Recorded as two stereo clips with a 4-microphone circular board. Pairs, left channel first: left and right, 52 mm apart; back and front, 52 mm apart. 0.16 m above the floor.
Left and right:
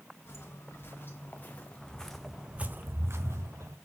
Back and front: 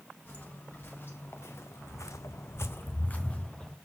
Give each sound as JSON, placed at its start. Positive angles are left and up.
{"t": 0.2, "sound": "footsteps", "azimuth_deg": 130, "distance_m": 2.0}